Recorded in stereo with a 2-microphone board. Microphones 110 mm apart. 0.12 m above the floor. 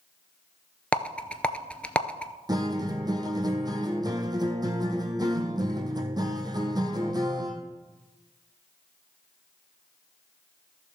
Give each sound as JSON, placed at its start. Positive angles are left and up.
{"t": 0.9, "sound": "a rattle", "side_deg": 10, "distance_m": 0.6}
{"t": 2.5, "sound": "a guitar", "side_deg": -40, "distance_m": 1.1}